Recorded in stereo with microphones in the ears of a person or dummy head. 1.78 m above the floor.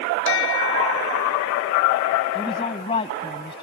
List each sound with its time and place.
0.2 s a bell: 70° left (ahead or behind)
2.4 s a woman speaking: 30° left (ahead or behind)